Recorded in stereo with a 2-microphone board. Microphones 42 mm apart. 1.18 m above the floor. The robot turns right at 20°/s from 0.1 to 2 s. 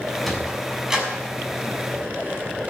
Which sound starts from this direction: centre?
A sliding door, at 0.2 s.